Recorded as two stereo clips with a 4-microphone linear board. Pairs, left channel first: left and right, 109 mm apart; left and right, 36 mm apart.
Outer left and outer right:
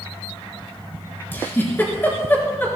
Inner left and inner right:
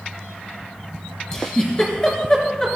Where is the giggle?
20° left (ahead or behind), 4 m.